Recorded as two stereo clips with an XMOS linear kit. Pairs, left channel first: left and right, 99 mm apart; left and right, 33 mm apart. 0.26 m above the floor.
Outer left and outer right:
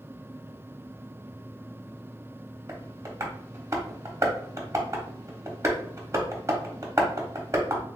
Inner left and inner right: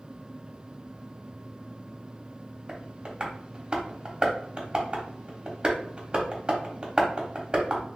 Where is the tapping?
30° right (ahead or behind), 0.9 m.